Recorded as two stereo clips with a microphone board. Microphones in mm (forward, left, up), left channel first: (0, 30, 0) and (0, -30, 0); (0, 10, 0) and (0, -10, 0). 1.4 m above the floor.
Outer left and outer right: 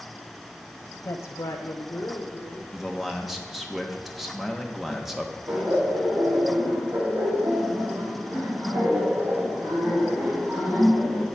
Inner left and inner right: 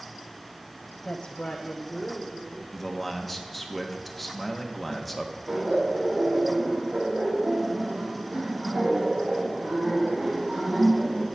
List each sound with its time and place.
1.1 s a woman speaking: 55° left (ahead or behind), 0.5 m; by 2.6 s 40° left (ahead or behind), 1.6 m
2.7 s a man speaking: 5° right (ahead or behind), 1.0 m
5.5 s laughter: 75° right (ahead or behind), 2.5 m